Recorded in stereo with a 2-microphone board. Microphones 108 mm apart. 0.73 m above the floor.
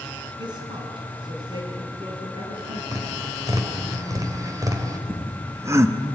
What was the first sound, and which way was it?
A woman speaking, 50° right (ahead or behind).